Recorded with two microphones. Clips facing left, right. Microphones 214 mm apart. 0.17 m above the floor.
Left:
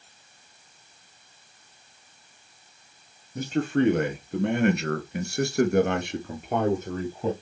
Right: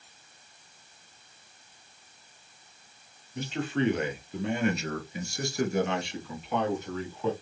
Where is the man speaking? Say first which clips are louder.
Left 6 dB; 45° left (ahead or behind), 3 m; by 7.3 s 40° left (ahead or behind), 3.5 m.